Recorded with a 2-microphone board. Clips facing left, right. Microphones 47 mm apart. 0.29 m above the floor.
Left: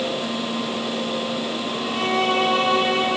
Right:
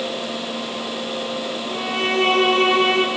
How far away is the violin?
About 7 m.